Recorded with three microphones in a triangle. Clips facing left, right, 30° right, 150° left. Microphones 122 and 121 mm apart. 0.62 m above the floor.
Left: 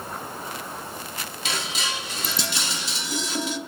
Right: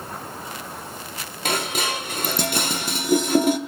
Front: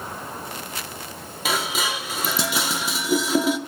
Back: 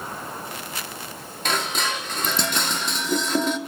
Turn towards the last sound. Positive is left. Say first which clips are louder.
# right 7 dB, even
turn(degrees=-115)